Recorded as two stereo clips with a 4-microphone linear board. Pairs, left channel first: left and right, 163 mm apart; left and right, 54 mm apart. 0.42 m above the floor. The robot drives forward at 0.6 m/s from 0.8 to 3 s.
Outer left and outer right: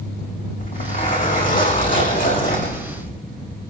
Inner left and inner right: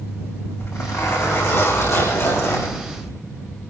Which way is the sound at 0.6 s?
60° left (ahead or behind).